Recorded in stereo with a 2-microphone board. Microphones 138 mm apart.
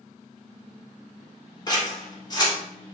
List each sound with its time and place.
1.7 s scissors: 30° left (ahead or behind), 0.9 m